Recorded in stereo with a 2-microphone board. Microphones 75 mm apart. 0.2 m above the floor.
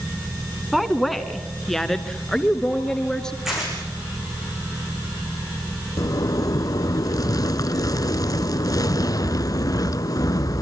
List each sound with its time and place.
0.7 s a woman speaking: centre (ahead or behind), 1.5 m; by 3.4 s 10° left (ahead or behind), 2.5 m
3.5 s tearing paper: 5° right (ahead or behind), 7 m
6.0 s a zipper: 55° left (ahead or behind), 0.6 m